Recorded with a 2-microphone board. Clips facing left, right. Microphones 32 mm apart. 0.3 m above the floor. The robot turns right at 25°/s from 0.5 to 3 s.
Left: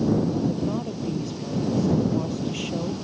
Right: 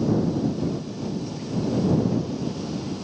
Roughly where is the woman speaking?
Ahead left.